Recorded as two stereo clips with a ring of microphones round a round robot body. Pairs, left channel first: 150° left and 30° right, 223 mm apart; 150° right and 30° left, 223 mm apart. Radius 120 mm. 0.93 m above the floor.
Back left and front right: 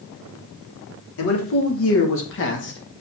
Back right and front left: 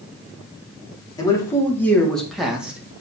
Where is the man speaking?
135° left, 2.5 m; by 3.0 s 110° left, 2 m.